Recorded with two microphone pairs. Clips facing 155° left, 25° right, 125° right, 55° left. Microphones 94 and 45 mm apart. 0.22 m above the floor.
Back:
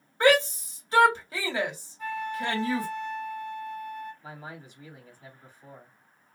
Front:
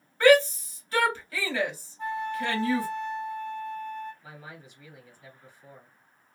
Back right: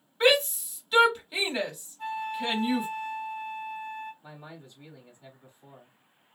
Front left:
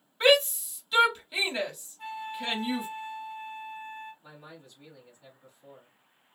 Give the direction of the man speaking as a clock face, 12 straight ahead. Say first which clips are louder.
Back 3 dB, back right 3 dB; 6 o'clock.